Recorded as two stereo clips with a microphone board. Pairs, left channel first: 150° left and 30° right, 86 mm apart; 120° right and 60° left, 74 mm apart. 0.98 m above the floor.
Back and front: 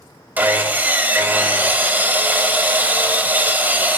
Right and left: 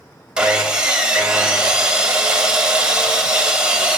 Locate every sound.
0.4 s sawing: straight ahead, 0.8 m